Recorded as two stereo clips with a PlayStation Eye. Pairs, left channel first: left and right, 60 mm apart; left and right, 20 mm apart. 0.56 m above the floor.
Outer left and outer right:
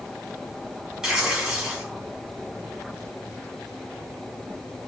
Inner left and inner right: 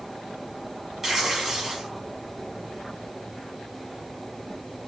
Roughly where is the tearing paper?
Centre.